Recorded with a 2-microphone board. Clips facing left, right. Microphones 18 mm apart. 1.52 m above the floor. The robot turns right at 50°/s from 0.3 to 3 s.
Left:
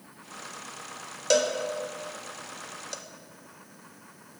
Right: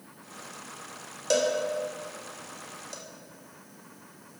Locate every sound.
1.3 s a cowbell: 15° left (ahead or behind), 0.7 m; by 3.0 s 20° left (ahead or behind), 0.7 m